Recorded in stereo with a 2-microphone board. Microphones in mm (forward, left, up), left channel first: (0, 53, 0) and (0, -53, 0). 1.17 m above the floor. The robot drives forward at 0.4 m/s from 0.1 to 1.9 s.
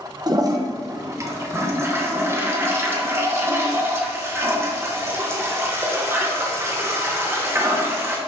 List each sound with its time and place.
0.3 s a toilet flushing: 40° right (ahead or behind), 0.8 m; by 8.2 s 25° right (ahead or behind), 1.3 m